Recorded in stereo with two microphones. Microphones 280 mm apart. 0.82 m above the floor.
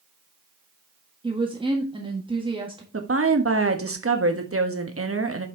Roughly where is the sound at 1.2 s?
Centre.